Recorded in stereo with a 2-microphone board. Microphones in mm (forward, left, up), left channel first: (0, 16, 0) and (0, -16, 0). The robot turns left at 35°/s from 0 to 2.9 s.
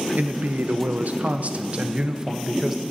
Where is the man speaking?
80° right, 0.7 m; by 2.8 s 170° right, 0.7 m.